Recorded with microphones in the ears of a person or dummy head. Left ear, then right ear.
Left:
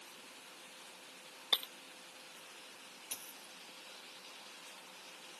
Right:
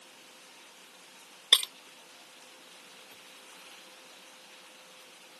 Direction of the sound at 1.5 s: 40° right (ahead or behind).